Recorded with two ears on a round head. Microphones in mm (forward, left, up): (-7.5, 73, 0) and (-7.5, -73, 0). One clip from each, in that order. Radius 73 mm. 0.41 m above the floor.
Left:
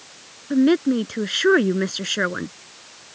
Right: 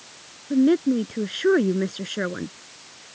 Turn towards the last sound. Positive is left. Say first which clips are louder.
# left 2 dB
turn(degrees=45)  # may be behind; listen again after turning